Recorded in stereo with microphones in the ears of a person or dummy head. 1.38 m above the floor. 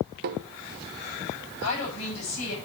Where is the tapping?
55° right (ahead or behind), 0.6 m.